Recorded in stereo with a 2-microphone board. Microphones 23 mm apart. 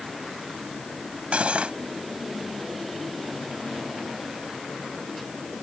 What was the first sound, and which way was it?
Cutlery clinking, 65° right (ahead or behind).